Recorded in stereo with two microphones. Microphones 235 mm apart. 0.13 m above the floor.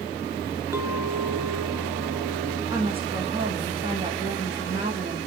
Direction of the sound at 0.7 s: 10° right (ahead or behind).